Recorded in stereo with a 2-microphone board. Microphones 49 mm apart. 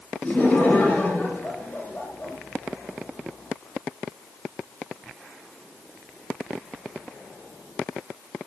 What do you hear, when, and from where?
0.2 s laughter: 30° left (ahead or behind), 6 m; by 2.4 s 40° left (ahead or behind), 6 m